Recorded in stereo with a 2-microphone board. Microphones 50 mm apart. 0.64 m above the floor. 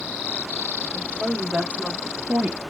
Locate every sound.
0.9 s a woman speaking: 20° right (ahead or behind), 2.5 m